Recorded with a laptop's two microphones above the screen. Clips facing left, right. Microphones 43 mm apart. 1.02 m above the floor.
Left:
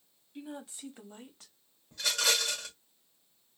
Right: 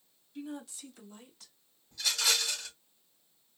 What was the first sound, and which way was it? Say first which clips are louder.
A woman speaking: right 2 dB; 20° left (ahead or behind).